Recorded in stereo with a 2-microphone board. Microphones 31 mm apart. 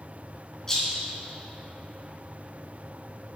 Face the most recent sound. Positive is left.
turn(degrees=20)  # may be behind; listen again after turning